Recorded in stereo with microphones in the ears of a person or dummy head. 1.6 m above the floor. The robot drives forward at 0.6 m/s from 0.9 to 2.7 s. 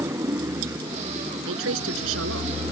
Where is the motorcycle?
10° right (ahead or behind).